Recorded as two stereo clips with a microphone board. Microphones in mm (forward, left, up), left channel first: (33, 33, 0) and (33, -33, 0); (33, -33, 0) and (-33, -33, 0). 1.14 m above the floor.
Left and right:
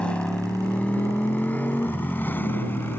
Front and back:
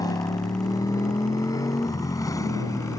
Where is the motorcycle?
15° left; by 3.0 s 30° left.